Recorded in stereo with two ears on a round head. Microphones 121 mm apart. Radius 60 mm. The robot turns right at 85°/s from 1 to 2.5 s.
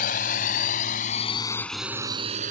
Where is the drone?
65° left (ahead or behind); by 2.5 s 65° right (ahead or behind).